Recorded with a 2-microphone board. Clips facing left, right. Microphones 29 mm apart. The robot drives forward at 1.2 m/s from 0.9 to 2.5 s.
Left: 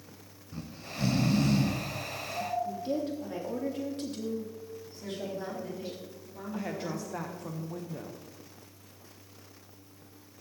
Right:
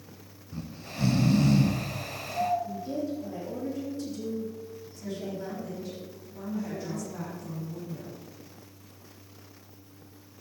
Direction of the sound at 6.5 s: 70° left (ahead or behind).